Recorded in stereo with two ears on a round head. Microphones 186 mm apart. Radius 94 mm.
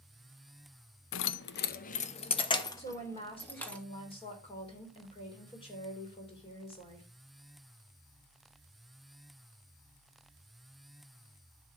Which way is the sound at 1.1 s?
70° left (ahead or behind).